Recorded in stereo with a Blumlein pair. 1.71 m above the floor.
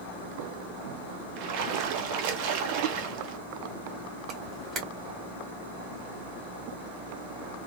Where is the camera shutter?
25° right, 1.9 m.